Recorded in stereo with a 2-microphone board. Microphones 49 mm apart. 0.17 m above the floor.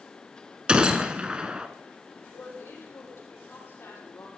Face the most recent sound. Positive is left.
turn(degrees=65)  # may be behind; listen again after turning